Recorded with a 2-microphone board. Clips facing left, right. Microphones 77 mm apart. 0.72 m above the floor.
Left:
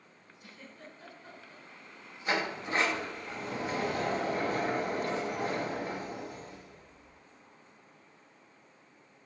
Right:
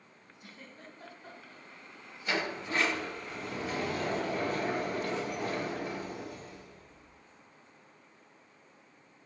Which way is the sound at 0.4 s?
40° right (ahead or behind).